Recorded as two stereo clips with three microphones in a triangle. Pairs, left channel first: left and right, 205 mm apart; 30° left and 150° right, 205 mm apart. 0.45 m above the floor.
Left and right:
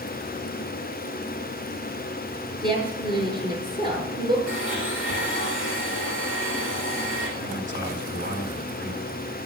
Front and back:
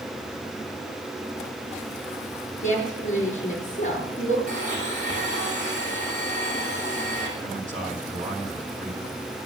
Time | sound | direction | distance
2.6 | a woman speaking | 25° right | 7 m
4.5 | a blender | 95° right | 4.5 m
7.4 | a man speaking | 100° right | 4 m